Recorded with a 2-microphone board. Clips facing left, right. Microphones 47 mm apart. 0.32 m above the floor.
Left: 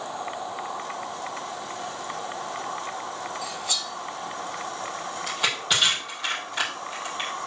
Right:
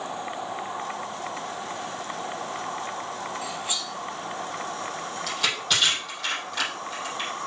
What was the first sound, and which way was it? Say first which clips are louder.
Cutlery clinking: even; 25° right (ahead or behind).